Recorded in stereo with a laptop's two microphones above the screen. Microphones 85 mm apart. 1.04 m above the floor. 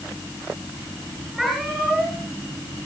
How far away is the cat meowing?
About 9 m.